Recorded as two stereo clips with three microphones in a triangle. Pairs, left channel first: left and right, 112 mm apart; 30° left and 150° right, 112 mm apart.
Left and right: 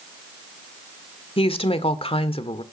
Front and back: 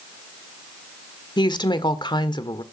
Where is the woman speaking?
70° left, 1.6 m.